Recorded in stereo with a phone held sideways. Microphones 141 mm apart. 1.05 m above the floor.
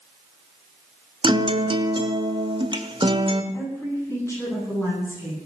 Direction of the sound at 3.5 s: 20° left (ahead or behind).